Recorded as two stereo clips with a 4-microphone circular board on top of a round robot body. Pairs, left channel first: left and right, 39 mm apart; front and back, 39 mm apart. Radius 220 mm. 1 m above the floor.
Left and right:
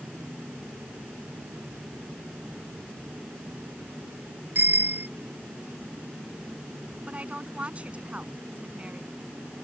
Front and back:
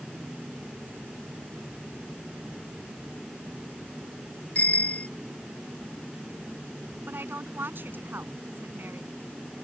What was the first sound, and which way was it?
A bicycle bell, 55° right.